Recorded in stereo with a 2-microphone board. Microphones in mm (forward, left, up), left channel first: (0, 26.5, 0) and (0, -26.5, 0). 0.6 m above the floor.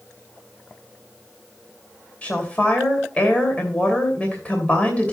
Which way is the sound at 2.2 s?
25° left (ahead or behind).